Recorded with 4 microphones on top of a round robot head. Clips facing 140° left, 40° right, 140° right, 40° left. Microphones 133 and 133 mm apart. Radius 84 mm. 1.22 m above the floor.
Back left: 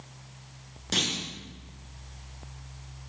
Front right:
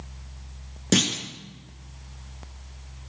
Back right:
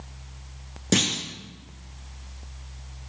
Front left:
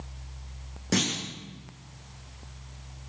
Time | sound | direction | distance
0.9 | a clunk | 75° right | 2.5 m